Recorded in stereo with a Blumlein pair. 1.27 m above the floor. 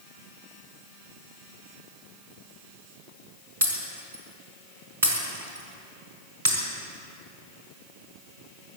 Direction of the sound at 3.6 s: 70° right.